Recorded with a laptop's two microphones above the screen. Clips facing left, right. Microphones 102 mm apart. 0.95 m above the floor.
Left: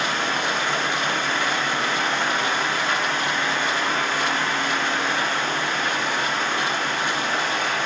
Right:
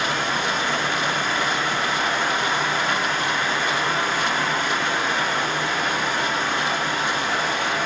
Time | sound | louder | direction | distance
0.0 | a fan | even | 10° right (ahead or behind) | 1.2 m